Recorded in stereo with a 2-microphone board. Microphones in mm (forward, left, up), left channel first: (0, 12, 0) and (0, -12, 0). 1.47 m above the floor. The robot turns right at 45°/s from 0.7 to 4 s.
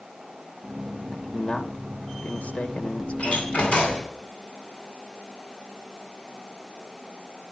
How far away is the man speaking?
About 2 m.